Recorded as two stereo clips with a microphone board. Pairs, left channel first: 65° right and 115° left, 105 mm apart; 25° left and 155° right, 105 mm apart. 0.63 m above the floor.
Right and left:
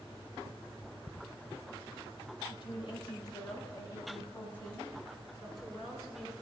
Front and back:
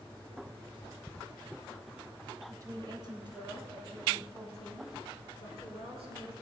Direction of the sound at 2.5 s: 100° right.